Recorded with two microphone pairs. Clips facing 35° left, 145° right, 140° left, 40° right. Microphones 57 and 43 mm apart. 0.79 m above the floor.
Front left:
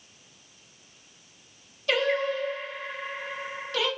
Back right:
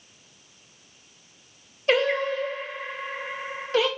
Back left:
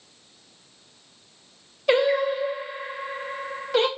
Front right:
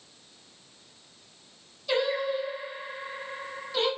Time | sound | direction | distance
1.9 | singing | 160° left | 0.6 m